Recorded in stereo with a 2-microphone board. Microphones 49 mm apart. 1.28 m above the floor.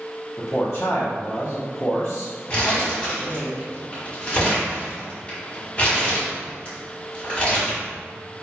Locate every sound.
0.4 s a man speaking: 55° left (ahead or behind), 0.5 m
2.5 s crumpling: 25° left (ahead or behind), 1.4 m